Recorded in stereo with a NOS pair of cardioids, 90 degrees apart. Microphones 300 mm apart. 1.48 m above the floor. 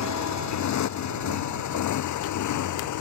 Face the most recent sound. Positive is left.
turn(degrees=75)